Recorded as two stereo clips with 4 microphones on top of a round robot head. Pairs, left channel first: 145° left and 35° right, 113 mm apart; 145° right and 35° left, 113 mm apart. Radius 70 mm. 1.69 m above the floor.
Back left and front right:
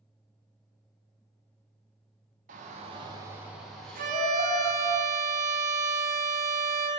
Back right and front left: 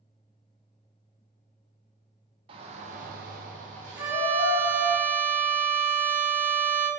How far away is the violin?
About 0.5 m.